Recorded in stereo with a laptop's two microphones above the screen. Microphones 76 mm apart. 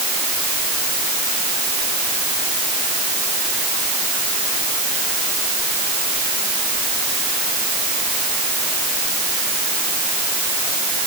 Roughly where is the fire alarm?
No fire alarm in this recording.